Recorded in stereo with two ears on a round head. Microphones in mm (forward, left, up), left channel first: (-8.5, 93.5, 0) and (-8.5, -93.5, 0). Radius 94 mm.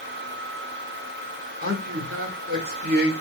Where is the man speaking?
45° right (ahead or behind), 1.4 m.